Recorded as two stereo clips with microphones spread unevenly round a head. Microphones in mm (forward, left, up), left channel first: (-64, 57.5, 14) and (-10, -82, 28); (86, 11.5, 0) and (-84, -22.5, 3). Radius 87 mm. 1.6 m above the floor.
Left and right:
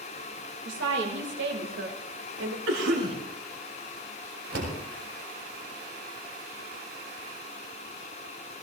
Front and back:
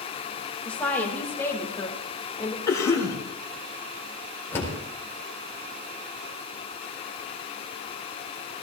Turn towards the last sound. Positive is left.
turn(degrees=-65)